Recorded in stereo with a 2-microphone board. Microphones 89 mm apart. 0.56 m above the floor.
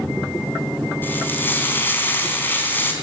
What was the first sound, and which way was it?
Frying, 20° left (ahead or behind).